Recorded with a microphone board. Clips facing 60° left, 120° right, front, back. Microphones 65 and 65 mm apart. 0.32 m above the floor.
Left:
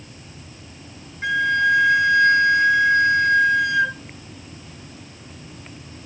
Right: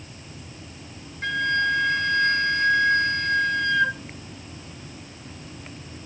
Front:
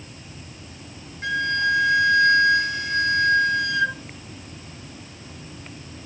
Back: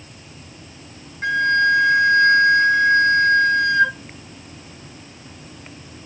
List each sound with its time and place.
1.2 s a flute: 135° left, 1.2 m